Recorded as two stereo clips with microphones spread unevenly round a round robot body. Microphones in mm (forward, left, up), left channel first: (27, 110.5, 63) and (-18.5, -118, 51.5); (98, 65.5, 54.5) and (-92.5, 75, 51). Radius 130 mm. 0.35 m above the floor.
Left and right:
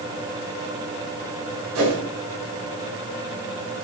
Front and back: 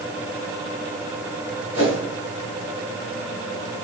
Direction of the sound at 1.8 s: 100° right.